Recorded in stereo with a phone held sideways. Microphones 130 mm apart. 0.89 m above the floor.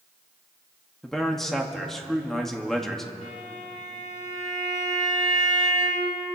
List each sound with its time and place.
1.0 s a man speaking: 5° left (ahead or behind), 1.6 m
3.2 s a violin: 70° left (ahead or behind), 3 m